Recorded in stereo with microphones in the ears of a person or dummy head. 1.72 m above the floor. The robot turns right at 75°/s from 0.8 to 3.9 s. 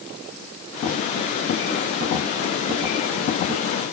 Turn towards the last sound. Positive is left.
No sound to turn to.